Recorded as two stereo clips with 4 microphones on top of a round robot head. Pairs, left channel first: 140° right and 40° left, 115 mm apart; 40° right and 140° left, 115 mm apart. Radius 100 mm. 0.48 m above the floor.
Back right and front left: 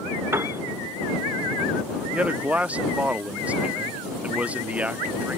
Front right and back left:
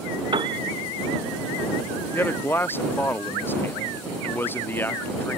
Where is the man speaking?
15° right.